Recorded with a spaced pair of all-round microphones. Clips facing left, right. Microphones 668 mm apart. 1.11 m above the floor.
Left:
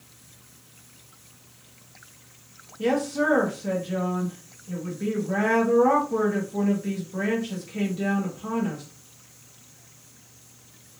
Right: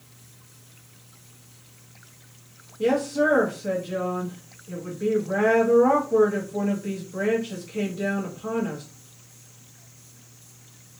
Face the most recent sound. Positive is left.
turn(degrees=30)  # may be behind; listen again after turning